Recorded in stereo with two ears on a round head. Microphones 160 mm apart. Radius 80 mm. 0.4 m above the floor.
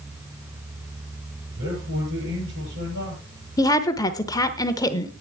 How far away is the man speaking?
About 8 m.